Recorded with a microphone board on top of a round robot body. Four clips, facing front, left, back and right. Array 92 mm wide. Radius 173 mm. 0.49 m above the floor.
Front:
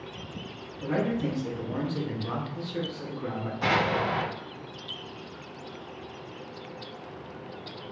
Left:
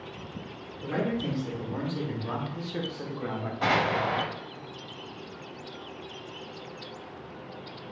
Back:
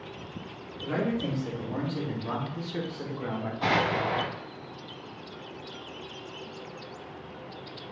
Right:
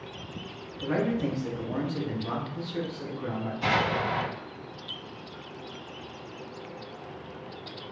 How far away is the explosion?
About 1.2 m.